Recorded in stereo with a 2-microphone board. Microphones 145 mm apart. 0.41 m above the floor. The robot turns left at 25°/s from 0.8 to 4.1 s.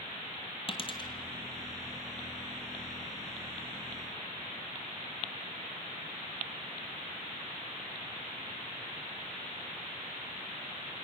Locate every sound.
0.7 s a dropped coin: 40° left (ahead or behind), 1.9 m; by 1.1 s 30° left (ahead or behind), 1.9 m